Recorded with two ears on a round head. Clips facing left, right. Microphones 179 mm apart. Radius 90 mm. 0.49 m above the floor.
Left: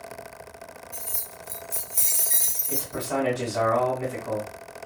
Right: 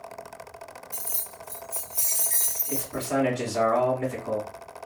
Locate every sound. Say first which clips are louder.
0.9 s keys jangling: left 1 dB; 15° right (ahead or behind), 0.5 m; by 3.1 s 55° left (ahead or behind), 1.7 m
2.7 s a man speaking: right 1 dB; centre (ahead or behind), 1.5 m